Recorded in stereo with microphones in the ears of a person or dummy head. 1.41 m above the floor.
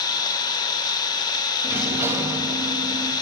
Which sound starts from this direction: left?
An engine running, at 0.0 s.